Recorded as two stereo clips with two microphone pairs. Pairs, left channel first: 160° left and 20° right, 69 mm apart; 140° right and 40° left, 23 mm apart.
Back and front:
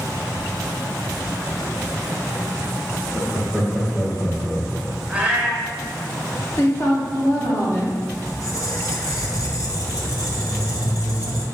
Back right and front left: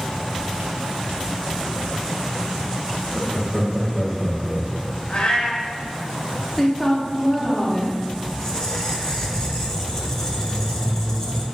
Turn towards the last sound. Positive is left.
turn(degrees=160)